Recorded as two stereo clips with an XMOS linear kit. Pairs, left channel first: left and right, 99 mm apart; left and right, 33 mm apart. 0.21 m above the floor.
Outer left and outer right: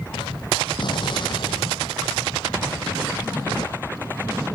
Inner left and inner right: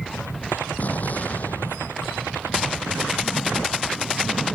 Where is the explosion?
50° left (ahead or behind).